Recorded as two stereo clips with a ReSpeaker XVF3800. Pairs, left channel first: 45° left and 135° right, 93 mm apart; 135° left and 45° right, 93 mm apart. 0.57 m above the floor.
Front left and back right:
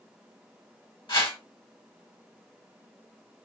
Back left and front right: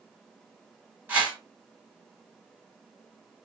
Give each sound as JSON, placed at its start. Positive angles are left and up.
{"t": 1.1, "sound": "a whoosh", "azimuth_deg": 25, "distance_m": 1.7}